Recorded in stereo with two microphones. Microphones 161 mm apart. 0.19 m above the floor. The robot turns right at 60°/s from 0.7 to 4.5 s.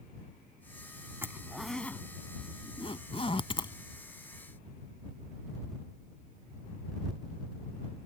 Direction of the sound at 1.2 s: 15° right (ahead or behind).